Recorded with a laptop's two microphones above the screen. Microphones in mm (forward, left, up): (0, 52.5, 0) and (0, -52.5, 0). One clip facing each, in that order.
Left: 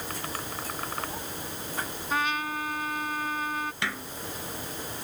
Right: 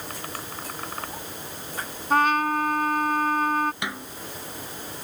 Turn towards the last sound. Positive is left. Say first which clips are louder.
# right 1 dB
turn(degrees=-15)  # may be behind; listen again after turning